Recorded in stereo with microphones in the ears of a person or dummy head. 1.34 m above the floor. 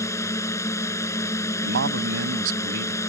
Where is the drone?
10° left (ahead or behind).